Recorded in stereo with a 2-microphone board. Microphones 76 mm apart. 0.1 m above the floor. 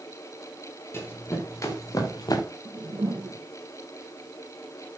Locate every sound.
0.9 s running footsteps: 35° left (ahead or behind), 5 m; by 2.5 s 60° left (ahead or behind), 3 m
2.6 s a whoosh: 60° right (ahead or behind), 2 m